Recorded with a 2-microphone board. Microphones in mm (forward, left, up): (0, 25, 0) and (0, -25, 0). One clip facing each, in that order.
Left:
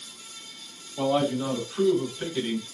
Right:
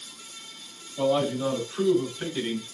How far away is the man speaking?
About 2.5 m.